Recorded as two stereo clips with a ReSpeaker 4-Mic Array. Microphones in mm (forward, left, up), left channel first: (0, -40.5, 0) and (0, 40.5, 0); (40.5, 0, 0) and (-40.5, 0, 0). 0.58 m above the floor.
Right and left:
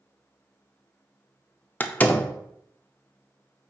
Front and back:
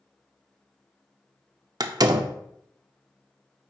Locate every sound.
1.8 s a door slam: 155° right, 0.6 m